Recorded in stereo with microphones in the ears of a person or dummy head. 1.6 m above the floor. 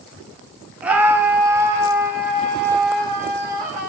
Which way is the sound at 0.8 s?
5° right (ahead or behind).